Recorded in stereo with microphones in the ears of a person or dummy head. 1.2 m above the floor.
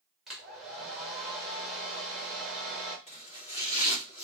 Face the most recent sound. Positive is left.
turn(degrees=30)  # may be behind; listen again after turning